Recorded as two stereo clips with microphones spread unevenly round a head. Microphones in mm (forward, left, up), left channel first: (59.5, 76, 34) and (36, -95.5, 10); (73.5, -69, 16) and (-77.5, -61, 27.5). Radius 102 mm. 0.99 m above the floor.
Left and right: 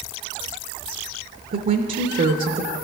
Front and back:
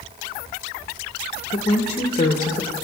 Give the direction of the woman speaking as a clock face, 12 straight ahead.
2 o'clock.